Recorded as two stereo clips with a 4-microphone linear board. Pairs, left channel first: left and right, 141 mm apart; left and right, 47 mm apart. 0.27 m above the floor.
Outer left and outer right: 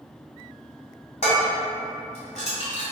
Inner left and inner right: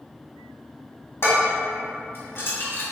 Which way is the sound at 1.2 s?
55° left (ahead or behind).